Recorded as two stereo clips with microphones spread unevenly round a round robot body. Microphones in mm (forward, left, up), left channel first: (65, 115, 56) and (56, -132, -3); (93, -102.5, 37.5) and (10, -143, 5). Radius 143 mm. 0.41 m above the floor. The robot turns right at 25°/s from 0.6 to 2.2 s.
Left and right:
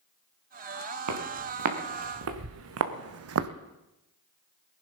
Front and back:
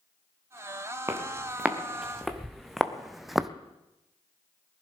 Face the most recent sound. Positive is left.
turn(degrees=-60)